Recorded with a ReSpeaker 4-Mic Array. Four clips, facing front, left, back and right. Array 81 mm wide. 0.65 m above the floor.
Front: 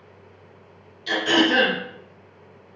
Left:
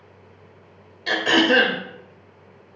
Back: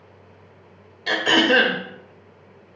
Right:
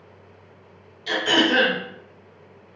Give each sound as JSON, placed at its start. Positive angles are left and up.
{"t": 1.1, "sound": "throat clearing", "azimuth_deg": 140, "distance_m": 1.2}